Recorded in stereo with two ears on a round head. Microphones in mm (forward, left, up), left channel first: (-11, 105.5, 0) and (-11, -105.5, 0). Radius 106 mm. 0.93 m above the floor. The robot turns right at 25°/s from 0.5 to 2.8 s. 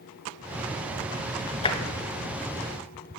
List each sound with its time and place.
1.6 s tapping: 25° left (ahead or behind), 0.8 m